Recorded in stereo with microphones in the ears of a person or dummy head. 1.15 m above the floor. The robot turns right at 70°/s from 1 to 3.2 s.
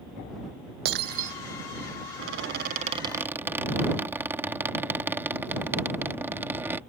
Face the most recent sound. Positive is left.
turn(degrees=-15)